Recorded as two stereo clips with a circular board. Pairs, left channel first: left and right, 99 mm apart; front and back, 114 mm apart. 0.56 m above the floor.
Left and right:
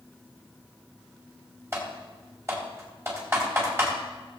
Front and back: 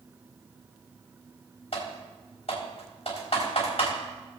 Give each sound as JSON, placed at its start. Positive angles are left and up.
{"t": 1.7, "sound": "typing on a keyboard", "azimuth_deg": -30, "distance_m": 4.0}